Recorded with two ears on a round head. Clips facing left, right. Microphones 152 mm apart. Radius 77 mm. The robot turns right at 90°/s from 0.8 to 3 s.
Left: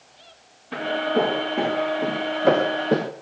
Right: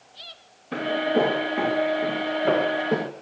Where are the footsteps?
45° right (ahead or behind), 4.5 m; by 3.1 s 30° left (ahead or behind), 1.7 m.